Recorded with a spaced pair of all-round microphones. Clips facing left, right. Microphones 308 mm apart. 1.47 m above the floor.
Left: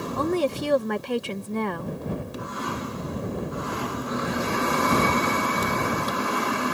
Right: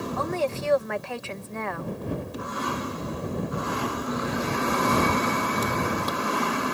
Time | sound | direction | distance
0.2 | a woman speaking | 40° left (ahead or behind) | ?